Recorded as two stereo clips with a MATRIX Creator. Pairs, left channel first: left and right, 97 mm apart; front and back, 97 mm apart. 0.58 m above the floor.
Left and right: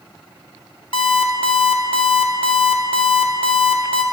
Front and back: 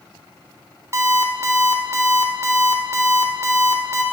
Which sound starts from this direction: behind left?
An alarm clock, at 0.9 s.